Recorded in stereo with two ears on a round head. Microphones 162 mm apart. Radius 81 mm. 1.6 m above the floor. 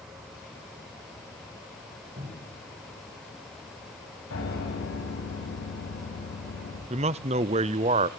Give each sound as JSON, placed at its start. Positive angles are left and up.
{"t": 2.2, "sound": "a cupboard door", "side_deg": -55, "distance_m": 7.5}
{"t": 4.3, "sound": "a piano", "side_deg": 85, "distance_m": 7.5}
{"t": 6.9, "sound": "a man speaking", "side_deg": -35, "distance_m": 0.6}